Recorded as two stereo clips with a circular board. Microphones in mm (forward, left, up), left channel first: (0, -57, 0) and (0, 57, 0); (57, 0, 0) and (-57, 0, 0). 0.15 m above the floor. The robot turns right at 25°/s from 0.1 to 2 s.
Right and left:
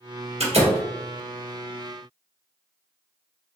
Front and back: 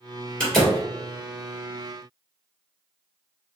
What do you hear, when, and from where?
0.4 s a door slam: 80° left, 2 m; by 0.8 s 90° left, 2 m